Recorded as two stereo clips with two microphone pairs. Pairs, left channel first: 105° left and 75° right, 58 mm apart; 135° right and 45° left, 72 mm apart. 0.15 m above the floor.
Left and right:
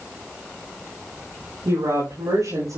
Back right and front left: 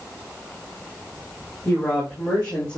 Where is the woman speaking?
65° right, 9 m.